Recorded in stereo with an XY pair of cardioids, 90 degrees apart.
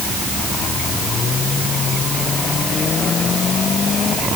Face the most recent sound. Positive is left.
No sound to turn to.